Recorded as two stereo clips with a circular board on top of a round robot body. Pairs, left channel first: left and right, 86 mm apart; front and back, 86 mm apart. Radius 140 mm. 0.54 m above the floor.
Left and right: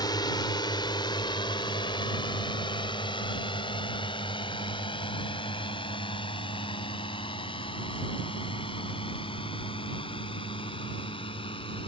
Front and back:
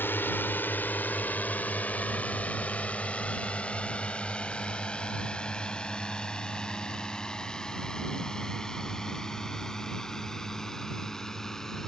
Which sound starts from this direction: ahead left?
A drone, at 0.0 s.